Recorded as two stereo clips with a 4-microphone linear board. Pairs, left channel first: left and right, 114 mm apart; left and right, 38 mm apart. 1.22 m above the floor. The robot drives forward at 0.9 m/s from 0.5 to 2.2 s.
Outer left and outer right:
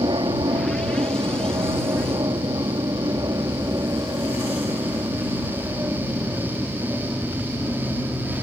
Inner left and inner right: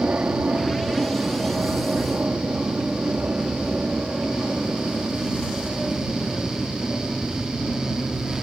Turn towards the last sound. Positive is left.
turn(degrees=-15)  # may be behind; listen again after turning